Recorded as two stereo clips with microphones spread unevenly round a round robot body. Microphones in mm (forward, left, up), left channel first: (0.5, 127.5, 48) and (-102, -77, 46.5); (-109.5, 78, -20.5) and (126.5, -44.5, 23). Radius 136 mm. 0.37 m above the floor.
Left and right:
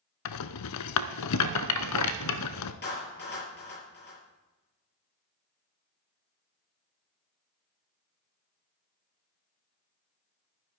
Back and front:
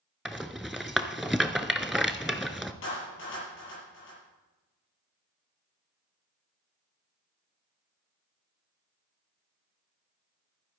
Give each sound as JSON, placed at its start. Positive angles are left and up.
{"t": 0.2, "sound": "a rattle", "azimuth_deg": 60, "distance_m": 0.7}
{"t": 2.8, "sound": "a clap", "azimuth_deg": 105, "distance_m": 7.0}